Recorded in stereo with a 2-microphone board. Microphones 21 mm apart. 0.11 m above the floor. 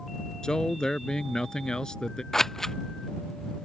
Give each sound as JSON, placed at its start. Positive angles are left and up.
{"t": 0.4, "sound": "a man speaking", "side_deg": 30}
{"t": 2.3, "sound": "scissors", "side_deg": 15}